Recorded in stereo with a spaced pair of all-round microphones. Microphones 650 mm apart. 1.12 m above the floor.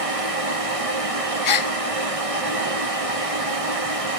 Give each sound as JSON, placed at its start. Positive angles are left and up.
{"t": 0.0, "sound": "a fan", "side_deg": -55, "distance_m": 1.8}
{"t": 1.4, "sound": "a gasp", "side_deg": 55, "distance_m": 0.6}